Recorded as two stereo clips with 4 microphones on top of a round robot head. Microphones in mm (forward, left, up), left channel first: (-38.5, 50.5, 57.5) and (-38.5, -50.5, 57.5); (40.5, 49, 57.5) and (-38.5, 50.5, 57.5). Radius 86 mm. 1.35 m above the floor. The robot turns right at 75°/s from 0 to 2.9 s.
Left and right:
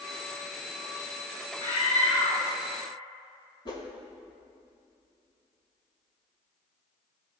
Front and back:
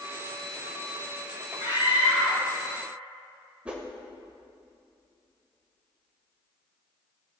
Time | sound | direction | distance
1.6 | a scream | 20° left | 4.5 m
3.6 | a whoosh | 110° left | 1.2 m